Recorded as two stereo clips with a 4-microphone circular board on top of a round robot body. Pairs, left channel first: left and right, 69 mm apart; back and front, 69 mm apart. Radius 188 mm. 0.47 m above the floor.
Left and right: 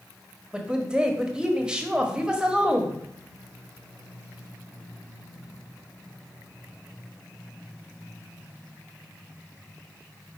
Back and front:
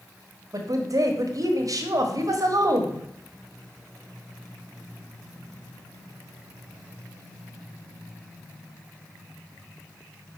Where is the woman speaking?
15° right, 1.4 m.